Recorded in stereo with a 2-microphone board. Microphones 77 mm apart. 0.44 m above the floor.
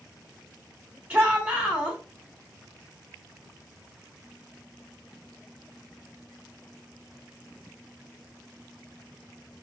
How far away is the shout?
About 1.0 m.